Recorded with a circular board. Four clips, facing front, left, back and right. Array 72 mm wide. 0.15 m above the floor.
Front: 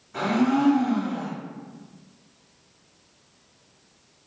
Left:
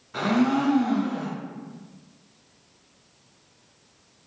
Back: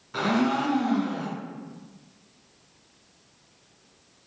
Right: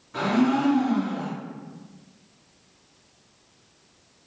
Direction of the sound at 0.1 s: 170° left.